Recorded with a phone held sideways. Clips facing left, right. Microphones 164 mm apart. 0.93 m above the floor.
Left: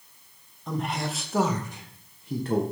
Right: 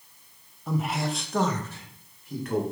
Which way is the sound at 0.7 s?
5° right (ahead or behind).